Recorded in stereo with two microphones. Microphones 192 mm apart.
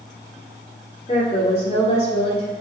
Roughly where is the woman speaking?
Left.